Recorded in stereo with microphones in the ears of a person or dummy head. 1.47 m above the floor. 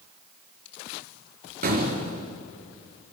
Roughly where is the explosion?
Right.